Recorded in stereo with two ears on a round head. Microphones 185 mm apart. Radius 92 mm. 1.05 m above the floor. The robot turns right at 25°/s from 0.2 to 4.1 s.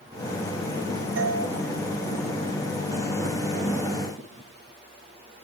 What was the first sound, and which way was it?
A doorbell, 70° right (ahead or behind).